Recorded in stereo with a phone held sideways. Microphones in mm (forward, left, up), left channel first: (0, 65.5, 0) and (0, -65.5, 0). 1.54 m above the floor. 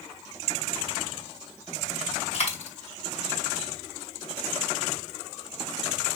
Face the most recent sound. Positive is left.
turn(degrees=55)  # may be behind; listen again after turning